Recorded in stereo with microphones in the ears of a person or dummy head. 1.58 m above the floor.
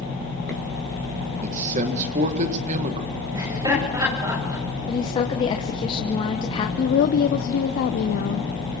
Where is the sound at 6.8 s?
50° left (ahead or behind), 0.7 m.